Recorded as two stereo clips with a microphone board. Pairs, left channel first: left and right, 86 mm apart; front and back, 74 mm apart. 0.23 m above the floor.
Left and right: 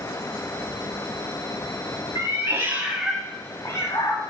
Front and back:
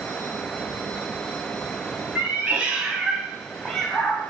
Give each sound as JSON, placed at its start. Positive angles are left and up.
{"t": 2.1, "sound": "a cat meowing", "azimuth_deg": -115, "distance_m": 0.9}